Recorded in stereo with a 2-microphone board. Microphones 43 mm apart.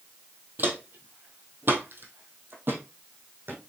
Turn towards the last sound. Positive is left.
turn(degrees=-60)  # may be behind; listen again after turning